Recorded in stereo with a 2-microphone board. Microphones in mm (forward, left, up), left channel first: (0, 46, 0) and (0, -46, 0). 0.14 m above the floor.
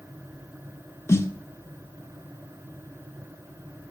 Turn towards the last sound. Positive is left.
turn(degrees=30)  # may be behind; listen again after turning